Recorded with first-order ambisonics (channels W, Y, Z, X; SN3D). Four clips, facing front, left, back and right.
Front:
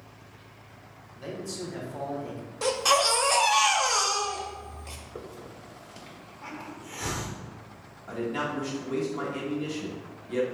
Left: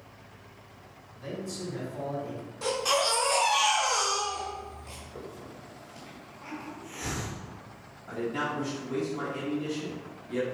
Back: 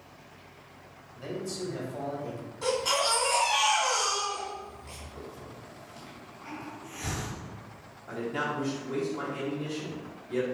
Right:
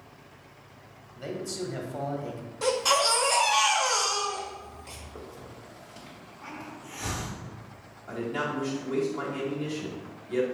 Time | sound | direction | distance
1.1 | a man speaking | 80° right | 1.2 m
2.6 | a baby crying | 15° right | 1.2 m
5.2 | a hiss | 15° right | 1.4 m
8.1 | a man speaking | 30° right | 1.2 m